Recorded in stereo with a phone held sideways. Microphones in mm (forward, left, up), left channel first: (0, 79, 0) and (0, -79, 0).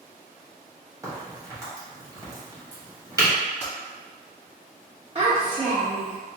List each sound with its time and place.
1.0 s a crack: 20° right (ahead or behind), 1.2 m
3.6 s typing on a keyboard: 5° left (ahead or behind), 1.4 m
5.2 s a child speaking: 30° right (ahead or behind), 1.1 m